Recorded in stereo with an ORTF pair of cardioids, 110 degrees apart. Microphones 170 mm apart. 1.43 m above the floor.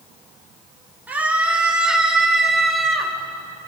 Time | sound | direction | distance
1.1 | a scream | 10° right | 3.5 m